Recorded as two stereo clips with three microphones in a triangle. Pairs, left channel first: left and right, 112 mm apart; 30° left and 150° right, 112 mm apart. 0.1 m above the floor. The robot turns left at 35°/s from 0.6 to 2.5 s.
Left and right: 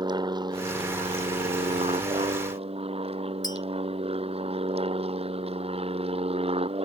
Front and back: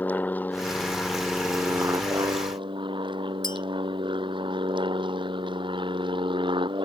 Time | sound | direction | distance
0.0 | an aircraft | 45° right | ?
3.4 | a clink | 55° left | ?